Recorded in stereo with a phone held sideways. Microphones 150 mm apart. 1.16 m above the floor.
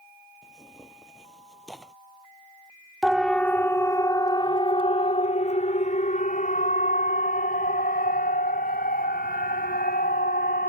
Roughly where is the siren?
Centre.